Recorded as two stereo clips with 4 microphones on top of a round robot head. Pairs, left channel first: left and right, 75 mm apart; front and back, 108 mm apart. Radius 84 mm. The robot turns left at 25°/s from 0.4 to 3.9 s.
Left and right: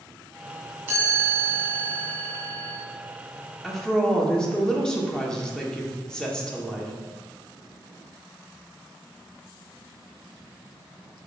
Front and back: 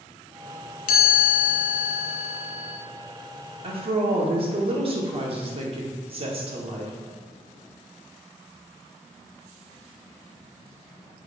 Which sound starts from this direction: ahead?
A chime, at 0.9 s.